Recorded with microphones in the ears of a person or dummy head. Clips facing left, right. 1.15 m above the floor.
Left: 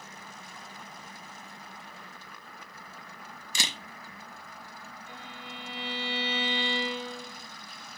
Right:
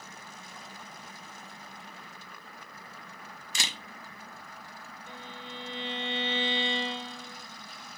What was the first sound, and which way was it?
A camera shutter, 75° left (ahead or behind).